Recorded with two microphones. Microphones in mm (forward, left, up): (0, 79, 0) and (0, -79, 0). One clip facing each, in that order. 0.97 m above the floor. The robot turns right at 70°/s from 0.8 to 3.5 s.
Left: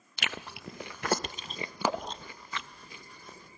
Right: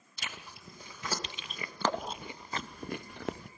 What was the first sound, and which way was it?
Chewing, 85° left.